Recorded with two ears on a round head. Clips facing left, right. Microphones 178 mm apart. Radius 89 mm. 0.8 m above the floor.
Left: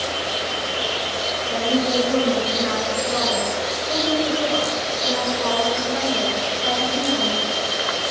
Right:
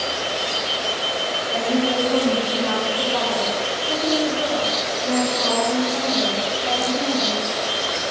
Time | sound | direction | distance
1.5 | a woman speaking | 20° left (ahead or behind) | 9.5 m